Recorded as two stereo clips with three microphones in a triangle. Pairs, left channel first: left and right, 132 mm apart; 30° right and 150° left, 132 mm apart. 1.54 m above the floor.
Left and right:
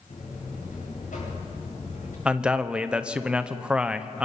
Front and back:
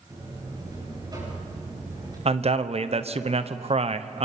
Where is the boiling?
No boiling in this recording.